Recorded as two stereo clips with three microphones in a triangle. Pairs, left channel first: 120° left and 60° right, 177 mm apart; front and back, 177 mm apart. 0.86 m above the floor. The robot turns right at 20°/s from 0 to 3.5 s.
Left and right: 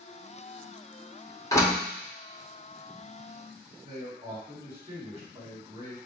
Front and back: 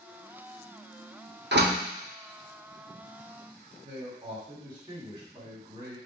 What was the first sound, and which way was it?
A door slam, 170° right.